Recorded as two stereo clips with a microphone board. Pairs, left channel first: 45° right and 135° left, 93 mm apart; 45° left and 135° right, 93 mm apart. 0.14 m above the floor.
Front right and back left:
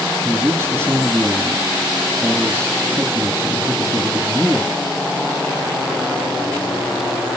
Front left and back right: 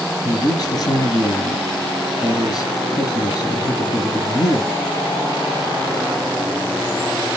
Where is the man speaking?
75° left, 2 m.